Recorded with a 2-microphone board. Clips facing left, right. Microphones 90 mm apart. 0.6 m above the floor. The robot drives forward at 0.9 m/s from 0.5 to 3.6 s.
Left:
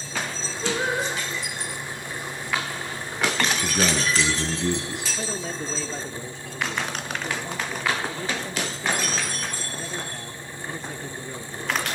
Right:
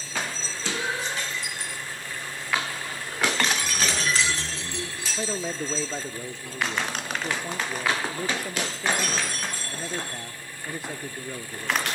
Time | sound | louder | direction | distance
0.6 | singing | left 5 dB | 45° left (ahead or behind) | 7.5 m
3.6 | a man speaking | left 4 dB | 80° left | 7.5 m
5.2 | a man speaking | right 5 dB | 10° right (ahead or behind) | 1.1 m